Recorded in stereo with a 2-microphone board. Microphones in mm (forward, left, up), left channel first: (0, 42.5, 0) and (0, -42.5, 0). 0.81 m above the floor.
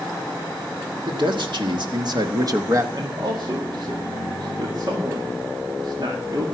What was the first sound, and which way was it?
A man speaking, 70° right (ahead or behind).